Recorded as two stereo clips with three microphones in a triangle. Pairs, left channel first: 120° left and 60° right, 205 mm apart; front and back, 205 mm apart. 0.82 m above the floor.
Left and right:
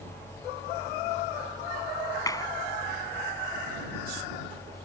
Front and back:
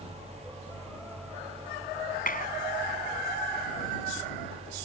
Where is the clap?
45° left.